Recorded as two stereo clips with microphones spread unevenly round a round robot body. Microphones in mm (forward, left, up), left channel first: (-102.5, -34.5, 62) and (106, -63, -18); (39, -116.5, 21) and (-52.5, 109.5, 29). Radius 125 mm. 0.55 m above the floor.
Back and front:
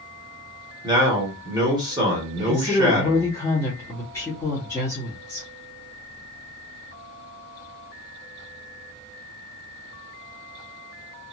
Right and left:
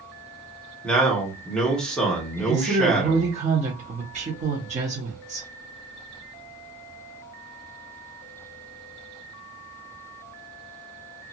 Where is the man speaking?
15° left, 1.3 m.